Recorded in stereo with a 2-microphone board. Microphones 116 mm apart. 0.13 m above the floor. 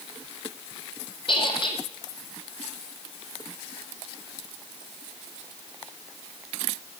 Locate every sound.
1.3 s a squeak: 45° left (ahead or behind), 1.9 m